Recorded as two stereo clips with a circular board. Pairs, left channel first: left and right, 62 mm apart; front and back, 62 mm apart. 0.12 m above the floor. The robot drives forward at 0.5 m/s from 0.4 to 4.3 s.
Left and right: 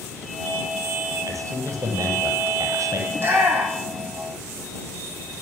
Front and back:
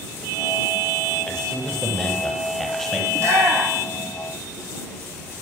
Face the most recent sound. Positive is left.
turn(degrees=-145)